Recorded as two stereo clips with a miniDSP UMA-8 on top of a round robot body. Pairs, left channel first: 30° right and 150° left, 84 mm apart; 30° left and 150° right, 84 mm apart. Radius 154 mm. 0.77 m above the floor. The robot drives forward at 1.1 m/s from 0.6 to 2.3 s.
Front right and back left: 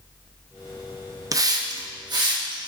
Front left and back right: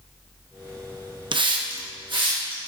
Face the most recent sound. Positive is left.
turn(degrees=-175)